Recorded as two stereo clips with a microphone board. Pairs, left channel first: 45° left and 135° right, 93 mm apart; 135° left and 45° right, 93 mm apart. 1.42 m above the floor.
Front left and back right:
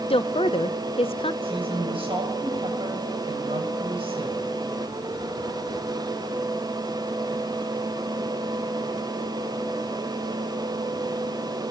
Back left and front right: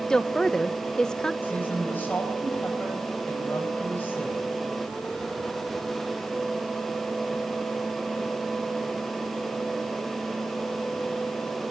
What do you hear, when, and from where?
0.1 s a woman speaking: 50° left, 1.0 m
1.4 s a woman speaking: 155° right, 9 m